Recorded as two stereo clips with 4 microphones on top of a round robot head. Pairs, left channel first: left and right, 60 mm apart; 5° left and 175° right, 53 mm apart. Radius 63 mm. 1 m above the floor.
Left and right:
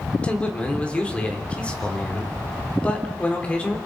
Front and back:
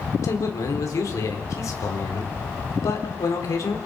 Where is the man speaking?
20° left, 4 m.